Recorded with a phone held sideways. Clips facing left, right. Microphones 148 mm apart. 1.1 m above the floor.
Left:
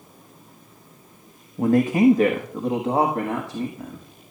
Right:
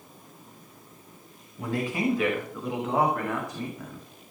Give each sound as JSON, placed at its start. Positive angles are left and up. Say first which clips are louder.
{"t": 1.6, "sound": "a man speaking", "louder": "left 11 dB", "side_deg": 50, "distance_m": 1.2}